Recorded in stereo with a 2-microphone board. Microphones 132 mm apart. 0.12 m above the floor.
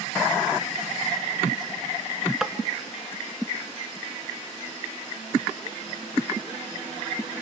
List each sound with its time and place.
2.4 s tapping: 5° right (ahead or behind), 0.6 m